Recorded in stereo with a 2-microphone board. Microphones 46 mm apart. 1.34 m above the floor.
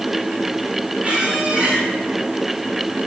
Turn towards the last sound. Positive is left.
turn(degrees=-30)  # may be behind; listen again after turning